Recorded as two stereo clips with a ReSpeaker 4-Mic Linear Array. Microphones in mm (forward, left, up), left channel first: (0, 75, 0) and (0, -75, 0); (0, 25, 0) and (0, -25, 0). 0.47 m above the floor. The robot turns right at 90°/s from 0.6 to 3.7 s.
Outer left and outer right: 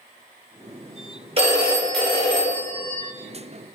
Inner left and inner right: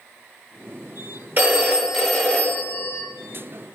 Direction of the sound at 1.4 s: 50° right.